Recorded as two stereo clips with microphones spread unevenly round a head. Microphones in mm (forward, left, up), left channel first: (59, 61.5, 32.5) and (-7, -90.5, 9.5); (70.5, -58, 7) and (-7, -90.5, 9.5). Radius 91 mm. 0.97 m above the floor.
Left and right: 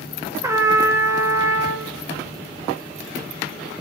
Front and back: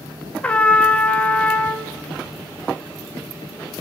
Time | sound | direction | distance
0.4 | a trumpet | 50° right | 0.6 m